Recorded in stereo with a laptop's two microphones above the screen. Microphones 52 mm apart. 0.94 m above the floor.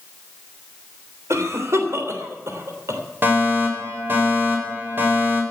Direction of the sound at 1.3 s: 75° right (ahead or behind).